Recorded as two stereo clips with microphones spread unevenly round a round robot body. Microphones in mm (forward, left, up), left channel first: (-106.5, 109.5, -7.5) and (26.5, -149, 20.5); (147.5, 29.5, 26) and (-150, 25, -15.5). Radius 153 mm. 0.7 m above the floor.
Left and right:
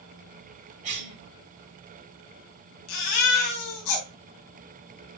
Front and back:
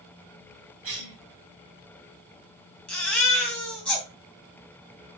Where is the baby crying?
90° left, 3 m.